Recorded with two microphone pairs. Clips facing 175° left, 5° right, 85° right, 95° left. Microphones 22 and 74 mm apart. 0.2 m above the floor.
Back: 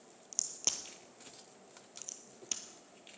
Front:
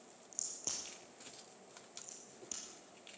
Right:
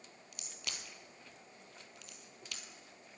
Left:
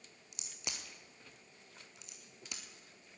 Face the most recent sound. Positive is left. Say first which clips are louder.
# back 7 dB, left 1 dB
turn(degrees=165)